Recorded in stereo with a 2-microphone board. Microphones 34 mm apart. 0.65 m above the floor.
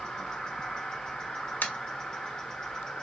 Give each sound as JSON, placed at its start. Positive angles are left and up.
{"t": 0.0, "sound": "an insect", "side_deg": 25, "distance_m": 1.5}
{"t": 1.6, "sound": "tapping", "side_deg": 75, "distance_m": 1.1}